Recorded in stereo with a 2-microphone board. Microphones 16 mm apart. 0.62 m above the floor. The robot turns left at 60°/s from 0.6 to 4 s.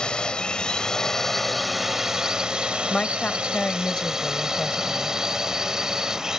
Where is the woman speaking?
120° left; by 5.2 s 55° left.